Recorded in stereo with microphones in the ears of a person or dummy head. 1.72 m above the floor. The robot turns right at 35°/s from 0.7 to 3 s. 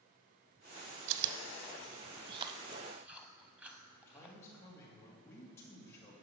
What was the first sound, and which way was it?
Chewing, 70° right (ahead or behind).